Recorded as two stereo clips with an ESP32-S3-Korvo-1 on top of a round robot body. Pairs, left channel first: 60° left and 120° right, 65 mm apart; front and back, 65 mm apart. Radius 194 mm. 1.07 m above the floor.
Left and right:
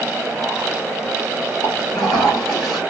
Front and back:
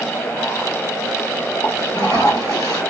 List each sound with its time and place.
1.6 s a toilet flushing: 40° left, 2 m